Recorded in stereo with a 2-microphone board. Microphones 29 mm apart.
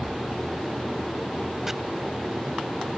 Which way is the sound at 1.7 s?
20° right (ahead or behind).